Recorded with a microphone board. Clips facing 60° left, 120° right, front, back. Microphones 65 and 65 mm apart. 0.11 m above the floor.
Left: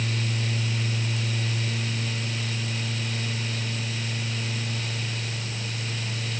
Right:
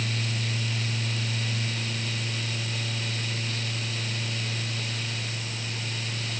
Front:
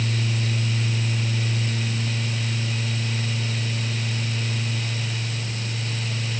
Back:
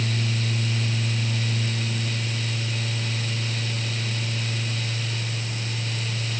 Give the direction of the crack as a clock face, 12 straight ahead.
I don't hear a crack.